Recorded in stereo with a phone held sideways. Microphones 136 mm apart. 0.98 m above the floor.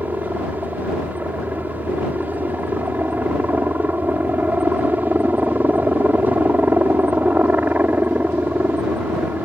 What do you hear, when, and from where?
0.0 s a helicopter: 10° right (ahead or behind)